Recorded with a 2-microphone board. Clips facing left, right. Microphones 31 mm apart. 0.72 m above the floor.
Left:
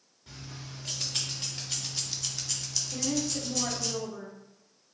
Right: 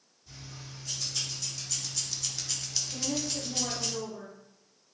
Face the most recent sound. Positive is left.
turn(degrees=35)  # may be behind; listen again after turning